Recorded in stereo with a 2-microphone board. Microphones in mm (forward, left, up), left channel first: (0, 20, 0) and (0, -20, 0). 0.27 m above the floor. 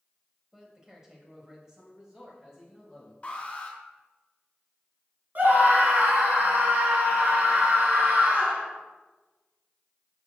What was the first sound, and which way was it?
A man speaking, 15° right (ahead or behind).